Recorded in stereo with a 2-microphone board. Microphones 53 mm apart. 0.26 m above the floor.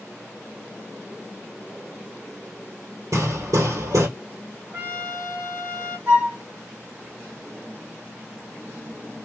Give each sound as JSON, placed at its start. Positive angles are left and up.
{"t": 3.1, "sound": "hammering", "side_deg": -75, "distance_m": 1.3}
{"t": 4.7, "sound": "a trumpet", "side_deg": -40, "distance_m": 1.8}
{"t": 6.1, "sound": "a flute", "side_deg": -45, "distance_m": 2.0}